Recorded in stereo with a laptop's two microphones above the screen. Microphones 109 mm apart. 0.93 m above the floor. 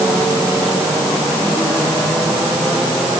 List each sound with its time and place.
Only background noise.